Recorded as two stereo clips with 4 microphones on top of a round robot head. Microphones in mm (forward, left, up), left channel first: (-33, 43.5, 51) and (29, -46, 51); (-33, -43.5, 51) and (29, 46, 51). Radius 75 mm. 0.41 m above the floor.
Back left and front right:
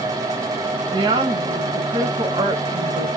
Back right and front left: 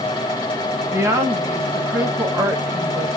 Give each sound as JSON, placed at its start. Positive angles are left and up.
{"t": 0.9, "sound": "a woman speaking", "azimuth_deg": -10, "distance_m": 1.9}